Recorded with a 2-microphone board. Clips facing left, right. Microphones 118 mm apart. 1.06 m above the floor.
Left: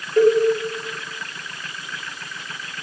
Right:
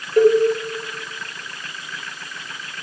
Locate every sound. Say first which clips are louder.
0.2 s a cowbell: right 1 dB; 10° right (ahead or behind), 1.2 m